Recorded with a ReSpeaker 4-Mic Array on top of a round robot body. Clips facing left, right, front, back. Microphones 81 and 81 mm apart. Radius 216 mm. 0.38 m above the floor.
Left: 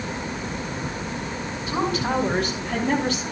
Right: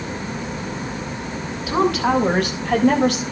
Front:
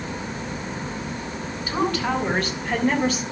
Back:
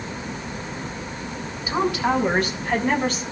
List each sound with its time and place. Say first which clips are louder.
1.7 s a woman speaking: right 6 dB, back 2 dB; 100° right, 5.5 m; by 3.2 s 85° right, 3.5 m